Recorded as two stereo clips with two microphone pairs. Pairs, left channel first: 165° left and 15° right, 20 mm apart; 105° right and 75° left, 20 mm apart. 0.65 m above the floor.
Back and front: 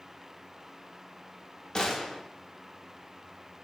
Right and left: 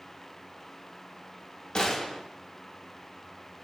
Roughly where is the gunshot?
Behind right.